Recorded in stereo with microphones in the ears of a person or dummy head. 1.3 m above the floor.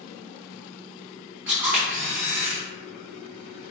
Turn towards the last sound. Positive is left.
turn(degrees=-15)  # may be behind; listen again after turning